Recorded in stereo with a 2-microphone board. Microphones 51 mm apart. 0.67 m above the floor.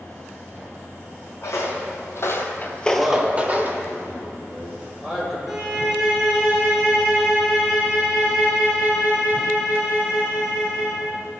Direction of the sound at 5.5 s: 5° right (ahead or behind).